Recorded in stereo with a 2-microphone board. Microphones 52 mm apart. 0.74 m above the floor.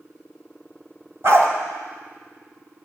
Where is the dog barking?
55° right (ahead or behind), 1.2 m.